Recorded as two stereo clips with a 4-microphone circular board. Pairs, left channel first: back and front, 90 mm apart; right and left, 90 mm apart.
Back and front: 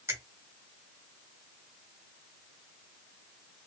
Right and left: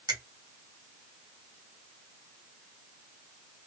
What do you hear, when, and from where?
0.1 s a finger snap: 55° left, 2 m